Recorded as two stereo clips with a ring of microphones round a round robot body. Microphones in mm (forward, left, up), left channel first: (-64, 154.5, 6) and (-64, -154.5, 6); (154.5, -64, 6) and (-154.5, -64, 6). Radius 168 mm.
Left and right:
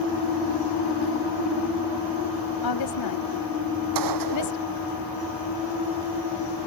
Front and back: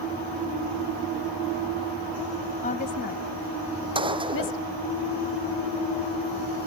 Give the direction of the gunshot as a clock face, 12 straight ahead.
4 o'clock.